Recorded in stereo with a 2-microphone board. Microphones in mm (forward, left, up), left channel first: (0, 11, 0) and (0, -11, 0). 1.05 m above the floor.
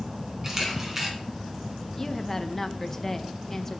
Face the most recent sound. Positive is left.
turn(degrees=15)  # may be behind; listen again after turning